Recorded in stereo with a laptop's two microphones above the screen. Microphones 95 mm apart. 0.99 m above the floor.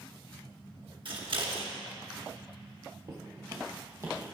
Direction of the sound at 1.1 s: 55° right (ahead or behind).